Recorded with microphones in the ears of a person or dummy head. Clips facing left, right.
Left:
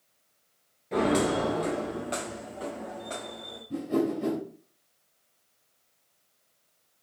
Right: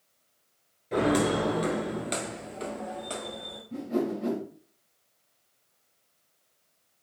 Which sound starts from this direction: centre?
Footsteps, at 0.9 s.